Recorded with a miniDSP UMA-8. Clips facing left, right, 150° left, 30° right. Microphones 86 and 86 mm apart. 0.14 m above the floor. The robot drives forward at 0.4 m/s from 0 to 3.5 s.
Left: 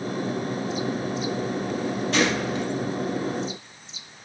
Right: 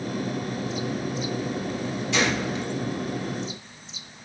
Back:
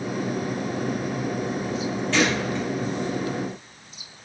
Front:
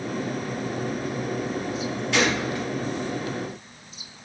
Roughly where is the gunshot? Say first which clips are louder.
Left 1 dB, back 1 dB; ahead left.